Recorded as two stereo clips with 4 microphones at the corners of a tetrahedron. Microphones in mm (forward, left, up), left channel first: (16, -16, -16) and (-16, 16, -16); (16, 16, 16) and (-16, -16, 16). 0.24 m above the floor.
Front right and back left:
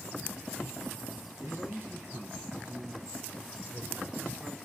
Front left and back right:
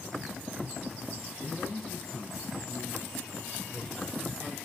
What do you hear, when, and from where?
1.4 s a man speaking: 140° left, 4.5 m; by 4.6 s 105° left, 2.5 m